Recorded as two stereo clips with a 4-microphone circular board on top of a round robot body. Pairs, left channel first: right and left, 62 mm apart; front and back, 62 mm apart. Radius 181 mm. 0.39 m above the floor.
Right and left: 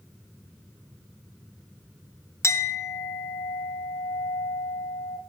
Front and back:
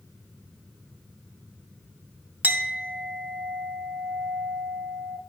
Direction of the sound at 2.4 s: 125° right.